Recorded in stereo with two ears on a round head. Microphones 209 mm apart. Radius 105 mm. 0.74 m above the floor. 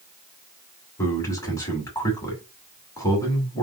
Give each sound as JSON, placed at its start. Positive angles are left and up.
{"t": 1.0, "sound": "a man speaking", "side_deg": 15, "distance_m": 2.5}